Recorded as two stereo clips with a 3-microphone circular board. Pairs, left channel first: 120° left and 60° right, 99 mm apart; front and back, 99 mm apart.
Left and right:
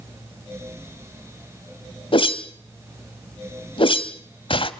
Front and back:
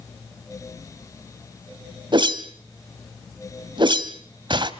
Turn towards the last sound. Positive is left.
turn(degrees=145)